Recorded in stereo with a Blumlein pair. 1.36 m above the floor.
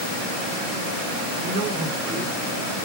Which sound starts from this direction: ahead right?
A man speaking, at 1.4 s.